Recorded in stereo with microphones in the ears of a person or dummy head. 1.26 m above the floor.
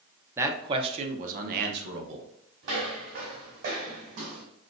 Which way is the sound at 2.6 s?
55° right (ahead or behind).